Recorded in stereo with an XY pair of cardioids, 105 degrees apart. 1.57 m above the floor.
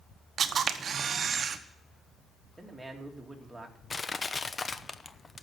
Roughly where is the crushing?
Ahead left.